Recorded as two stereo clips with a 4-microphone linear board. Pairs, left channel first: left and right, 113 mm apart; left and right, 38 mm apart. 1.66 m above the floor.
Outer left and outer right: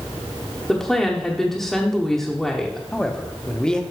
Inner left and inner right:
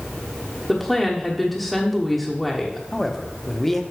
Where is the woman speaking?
5° left (ahead or behind), 1.2 m.